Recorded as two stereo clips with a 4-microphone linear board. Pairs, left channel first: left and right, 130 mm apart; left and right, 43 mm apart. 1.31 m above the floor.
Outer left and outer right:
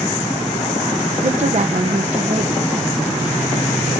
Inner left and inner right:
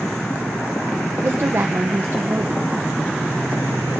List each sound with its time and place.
1.2 s a woman speaking: 65° right (ahead or behind), 1.1 m